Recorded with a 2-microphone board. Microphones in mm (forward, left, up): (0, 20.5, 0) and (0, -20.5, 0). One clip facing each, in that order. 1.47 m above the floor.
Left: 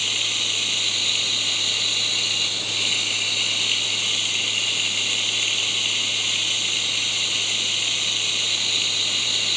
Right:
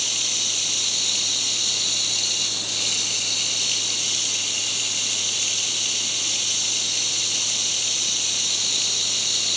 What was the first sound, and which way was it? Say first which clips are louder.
Running water: left 4 dB; 30° left (ahead or behind).